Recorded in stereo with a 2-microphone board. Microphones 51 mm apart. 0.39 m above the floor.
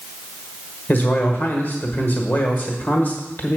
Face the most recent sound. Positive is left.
turn(degrees=40)  # may be behind; listen again after turning